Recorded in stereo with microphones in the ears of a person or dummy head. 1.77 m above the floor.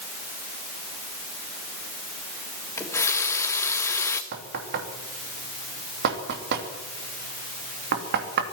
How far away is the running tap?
About 1.8 m.